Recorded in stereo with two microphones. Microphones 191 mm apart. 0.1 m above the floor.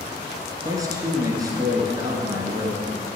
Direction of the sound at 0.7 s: 20° right (ahead or behind).